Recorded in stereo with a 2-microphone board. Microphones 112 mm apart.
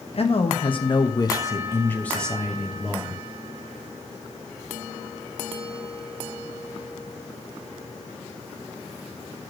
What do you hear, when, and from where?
0.1 s a man speaking: 55° left (ahead or behind), 1.3 m; by 3.2 s 15° right (ahead or behind), 1.2 m